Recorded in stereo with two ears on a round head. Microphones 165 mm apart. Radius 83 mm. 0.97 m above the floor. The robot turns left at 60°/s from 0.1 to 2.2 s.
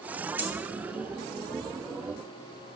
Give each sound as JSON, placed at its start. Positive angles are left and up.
{"t": 0.4, "sound": "a dropped coin", "side_deg": -10, "distance_m": 1.3}